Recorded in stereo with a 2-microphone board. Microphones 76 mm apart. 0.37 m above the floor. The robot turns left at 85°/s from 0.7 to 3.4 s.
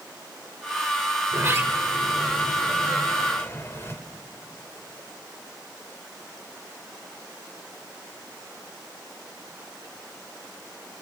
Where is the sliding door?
85° right, 1.3 m; by 4.0 s 100° left, 1.3 m.